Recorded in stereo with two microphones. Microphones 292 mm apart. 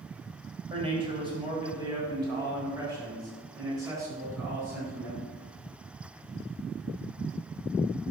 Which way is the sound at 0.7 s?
20° right (ahead or behind).